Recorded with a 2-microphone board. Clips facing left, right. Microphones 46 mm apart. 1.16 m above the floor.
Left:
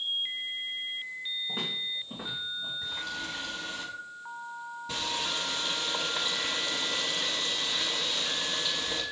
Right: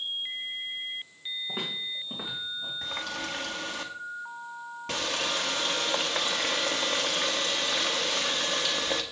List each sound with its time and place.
1.5 s footsteps: 20° right (ahead or behind), 4 m; by 2.7 s 30° right (ahead or behind), 4.5 m
2.8 s a running tap: 70° right (ahead or behind), 1.4 m